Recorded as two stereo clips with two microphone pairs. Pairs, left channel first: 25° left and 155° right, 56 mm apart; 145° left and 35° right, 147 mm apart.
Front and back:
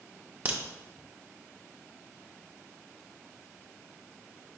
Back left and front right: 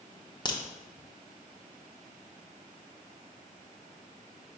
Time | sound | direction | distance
0.5 | a crack | straight behind | 0.6 m